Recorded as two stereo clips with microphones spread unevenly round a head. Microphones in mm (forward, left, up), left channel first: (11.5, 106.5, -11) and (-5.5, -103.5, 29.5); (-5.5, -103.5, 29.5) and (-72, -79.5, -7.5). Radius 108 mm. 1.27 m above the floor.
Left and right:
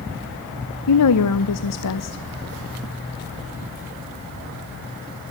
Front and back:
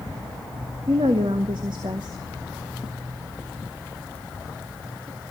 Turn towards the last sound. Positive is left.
turn(degrees=100)